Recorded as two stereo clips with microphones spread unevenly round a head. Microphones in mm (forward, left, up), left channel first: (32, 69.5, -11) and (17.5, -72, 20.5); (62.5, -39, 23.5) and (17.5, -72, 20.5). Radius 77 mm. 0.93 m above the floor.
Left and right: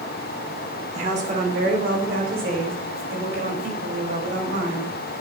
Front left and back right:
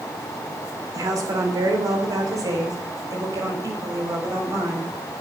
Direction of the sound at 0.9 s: 150° right.